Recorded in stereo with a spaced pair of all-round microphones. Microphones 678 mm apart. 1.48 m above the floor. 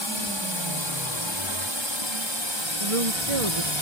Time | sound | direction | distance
0.0 | a drone | 40° left (ahead or behind) | ?
2.8 | a woman speaking | 50° right (ahead or behind) | ?